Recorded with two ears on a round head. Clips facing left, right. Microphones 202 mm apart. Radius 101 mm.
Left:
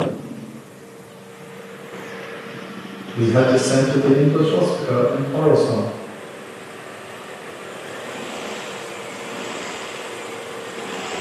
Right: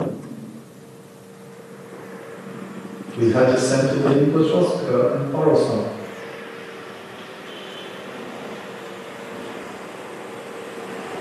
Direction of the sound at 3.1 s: 15° left (ahead or behind).